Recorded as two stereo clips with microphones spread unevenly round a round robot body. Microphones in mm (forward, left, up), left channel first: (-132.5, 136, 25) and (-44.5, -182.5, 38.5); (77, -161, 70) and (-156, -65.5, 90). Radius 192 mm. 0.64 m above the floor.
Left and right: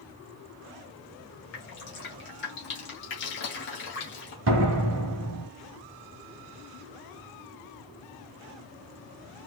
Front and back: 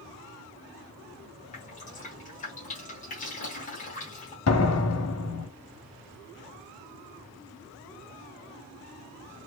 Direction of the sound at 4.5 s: 20° right.